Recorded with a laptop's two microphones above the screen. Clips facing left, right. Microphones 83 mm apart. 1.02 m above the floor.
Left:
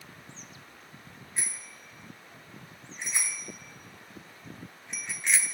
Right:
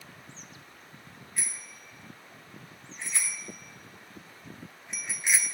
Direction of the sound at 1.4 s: 25° left (ahead or behind).